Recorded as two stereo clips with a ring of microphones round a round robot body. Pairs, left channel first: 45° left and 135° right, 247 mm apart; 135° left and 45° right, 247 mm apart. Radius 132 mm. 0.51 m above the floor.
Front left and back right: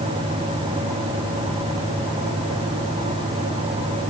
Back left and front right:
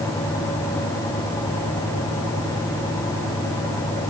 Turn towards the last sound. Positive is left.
No sound to turn to.